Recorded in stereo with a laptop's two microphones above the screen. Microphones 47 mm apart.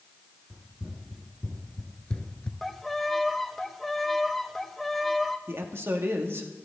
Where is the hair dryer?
No hair dryer in this recording.